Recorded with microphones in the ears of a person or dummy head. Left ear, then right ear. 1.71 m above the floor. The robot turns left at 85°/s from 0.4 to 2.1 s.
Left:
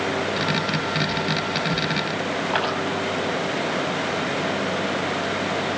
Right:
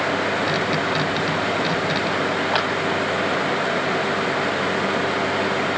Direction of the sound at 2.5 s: 40° right (ahead or behind).